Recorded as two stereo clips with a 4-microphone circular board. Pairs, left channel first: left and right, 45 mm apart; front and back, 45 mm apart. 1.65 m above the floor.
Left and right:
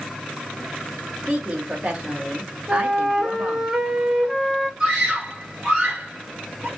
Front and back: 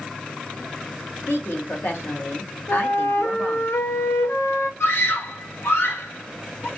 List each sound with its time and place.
1.3 s a woman speaking: 25° right, 0.8 m
2.7 s a flute: 10° right, 0.8 m
4.8 s a scream: 10° right, 0.9 m